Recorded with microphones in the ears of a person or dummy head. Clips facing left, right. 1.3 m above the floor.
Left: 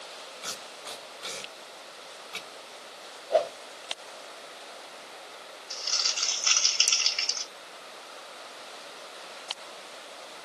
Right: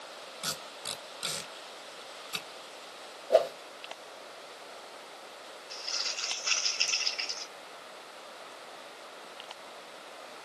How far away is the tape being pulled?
About 1.8 m.